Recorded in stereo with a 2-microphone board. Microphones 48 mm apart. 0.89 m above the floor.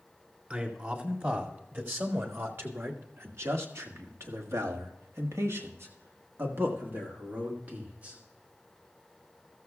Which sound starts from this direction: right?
A man speaking, at 0.5 s.